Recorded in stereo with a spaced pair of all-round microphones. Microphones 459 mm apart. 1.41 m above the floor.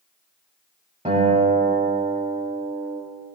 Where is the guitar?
15° right (ahead or behind), 3.5 m.